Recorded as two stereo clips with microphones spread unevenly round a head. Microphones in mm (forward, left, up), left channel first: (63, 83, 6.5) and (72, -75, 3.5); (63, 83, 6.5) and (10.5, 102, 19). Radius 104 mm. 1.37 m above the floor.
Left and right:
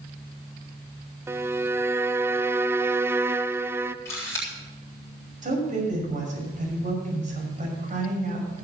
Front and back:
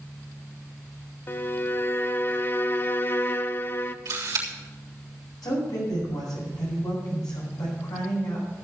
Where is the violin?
15° right, 0.6 m.